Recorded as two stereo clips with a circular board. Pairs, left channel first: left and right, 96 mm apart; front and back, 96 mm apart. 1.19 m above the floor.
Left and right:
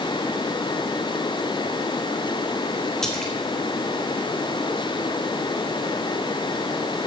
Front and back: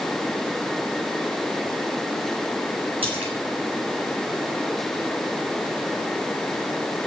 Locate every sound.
3.0 s a splash: 175° left, 3 m